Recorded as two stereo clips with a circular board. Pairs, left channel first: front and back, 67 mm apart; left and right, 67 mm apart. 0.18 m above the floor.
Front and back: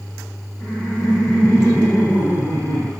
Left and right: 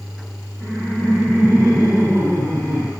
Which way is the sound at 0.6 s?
Straight ahead.